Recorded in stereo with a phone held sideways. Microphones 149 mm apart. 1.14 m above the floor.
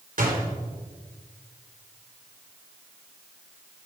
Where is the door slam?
65° right (ahead or behind), 3 m.